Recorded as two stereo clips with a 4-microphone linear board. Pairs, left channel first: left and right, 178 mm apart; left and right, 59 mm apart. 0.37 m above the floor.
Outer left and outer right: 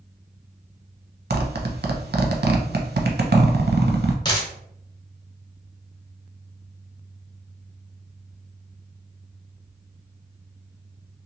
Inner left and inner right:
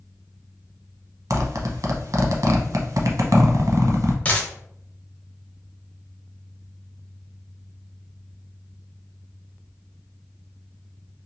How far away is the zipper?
About 0.6 m.